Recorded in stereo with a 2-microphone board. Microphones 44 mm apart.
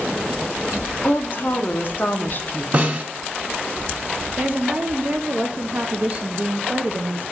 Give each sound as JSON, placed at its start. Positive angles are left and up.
{"t": 1.0, "sound": "a woman speaking", "side_deg": 40, "distance_m": 0.9}
{"t": 2.7, "sound": "a snare drum", "side_deg": -35, "distance_m": 1.3}
{"t": 4.4, "sound": "a woman speaking", "side_deg": -35, "distance_m": 0.5}